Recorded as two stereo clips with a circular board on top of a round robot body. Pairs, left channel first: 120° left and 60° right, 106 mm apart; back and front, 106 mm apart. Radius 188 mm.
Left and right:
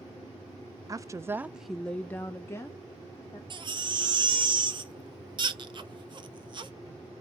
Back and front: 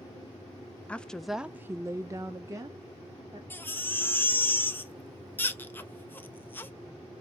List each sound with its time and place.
0.9 s a woman speaking: 105° right, 0.6 m; by 3.4 s 60° left, 1.2 m
3.5 s a baby crying: 110° right, 0.7 m